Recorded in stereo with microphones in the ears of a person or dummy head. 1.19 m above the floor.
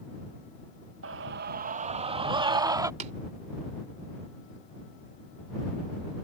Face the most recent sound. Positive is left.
turn(degrees=-40)  # may be behind; listen again after turning